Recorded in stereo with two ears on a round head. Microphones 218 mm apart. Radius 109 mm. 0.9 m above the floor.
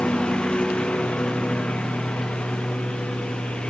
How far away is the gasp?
No gasp in this recording.